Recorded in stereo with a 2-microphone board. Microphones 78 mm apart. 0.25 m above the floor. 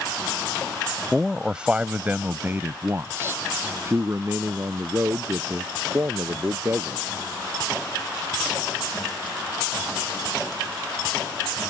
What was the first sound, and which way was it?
A man speaking, 5° right (ahead or behind).